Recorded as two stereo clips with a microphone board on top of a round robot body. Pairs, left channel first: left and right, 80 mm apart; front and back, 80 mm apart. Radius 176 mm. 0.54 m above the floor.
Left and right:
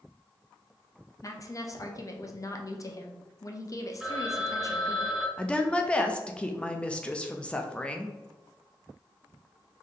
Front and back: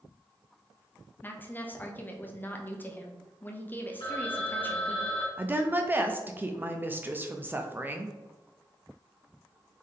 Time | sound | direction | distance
1.2 | a woman speaking | 60° left | 0.8 m
4.0 | a phone ringing | 5° right | 2.0 m
5.4 | a woman speaking | 150° left | 0.6 m